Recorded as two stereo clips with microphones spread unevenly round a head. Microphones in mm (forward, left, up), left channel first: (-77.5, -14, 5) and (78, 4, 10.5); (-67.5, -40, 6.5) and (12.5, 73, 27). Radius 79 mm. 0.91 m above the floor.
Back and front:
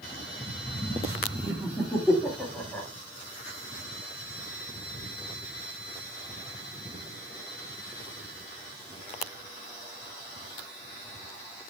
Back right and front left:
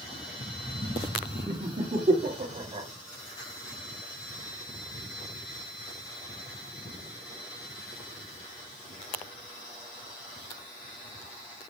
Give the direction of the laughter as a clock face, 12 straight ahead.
9 o'clock.